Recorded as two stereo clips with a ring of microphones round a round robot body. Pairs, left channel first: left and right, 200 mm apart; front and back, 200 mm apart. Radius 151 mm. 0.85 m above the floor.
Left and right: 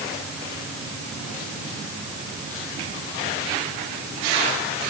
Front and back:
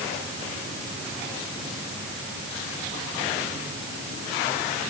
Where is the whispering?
No whispering in this recording.